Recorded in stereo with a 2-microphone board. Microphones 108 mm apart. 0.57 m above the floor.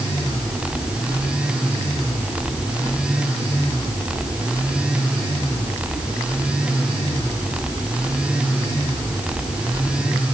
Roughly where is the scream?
No scream in this recording.